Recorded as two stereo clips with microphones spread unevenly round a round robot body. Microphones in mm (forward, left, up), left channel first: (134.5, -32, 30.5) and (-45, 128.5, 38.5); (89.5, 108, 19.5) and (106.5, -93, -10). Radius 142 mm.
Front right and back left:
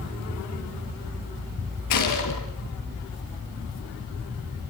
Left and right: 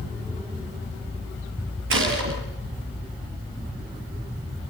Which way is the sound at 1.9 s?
65° right.